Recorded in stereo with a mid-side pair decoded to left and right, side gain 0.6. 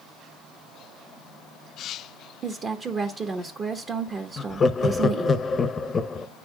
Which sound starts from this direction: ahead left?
Laughter, at 4.4 s.